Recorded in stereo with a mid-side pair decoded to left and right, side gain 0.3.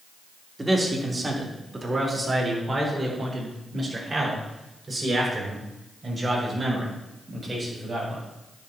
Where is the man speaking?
30° right, 3.5 m; by 8.2 s 45° right, 7.5 m.